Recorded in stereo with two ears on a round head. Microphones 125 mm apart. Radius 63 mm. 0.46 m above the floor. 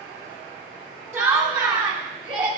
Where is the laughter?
20° right (ahead or behind), 1.6 m; by 2.5 s 35° right (ahead or behind), 2 m.